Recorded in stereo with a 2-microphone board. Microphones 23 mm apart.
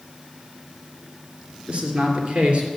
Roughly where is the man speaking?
Right.